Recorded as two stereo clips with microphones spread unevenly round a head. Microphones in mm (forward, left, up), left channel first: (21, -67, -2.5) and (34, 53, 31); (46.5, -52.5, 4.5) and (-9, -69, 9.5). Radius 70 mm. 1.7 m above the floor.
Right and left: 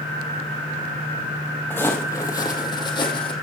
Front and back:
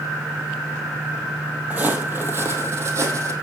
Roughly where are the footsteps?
Behind.